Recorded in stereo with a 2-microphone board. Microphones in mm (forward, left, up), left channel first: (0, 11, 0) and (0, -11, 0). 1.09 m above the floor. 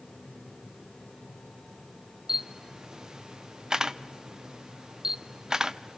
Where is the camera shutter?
30° right (ahead or behind), 0.5 m.